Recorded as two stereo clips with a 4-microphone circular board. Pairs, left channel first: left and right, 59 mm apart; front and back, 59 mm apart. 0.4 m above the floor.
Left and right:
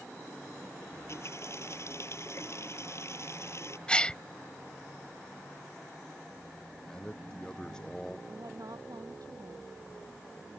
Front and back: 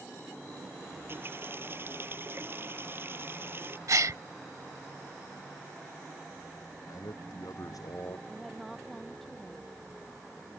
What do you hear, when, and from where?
0.9 s a running tap: 130° left
3.9 s a gasp: 160° left
6.9 s a man speaking: 10° left
8.3 s a woman speaking: 90° right